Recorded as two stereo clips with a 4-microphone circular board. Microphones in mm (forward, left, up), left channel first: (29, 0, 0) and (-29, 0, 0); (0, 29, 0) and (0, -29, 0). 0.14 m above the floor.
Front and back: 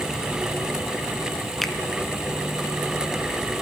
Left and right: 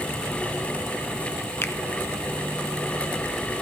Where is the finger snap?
85° left, 1.3 m.